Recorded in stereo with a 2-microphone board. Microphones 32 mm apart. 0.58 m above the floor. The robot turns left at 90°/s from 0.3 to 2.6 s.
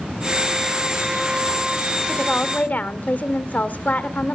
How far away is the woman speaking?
About 1.8 m.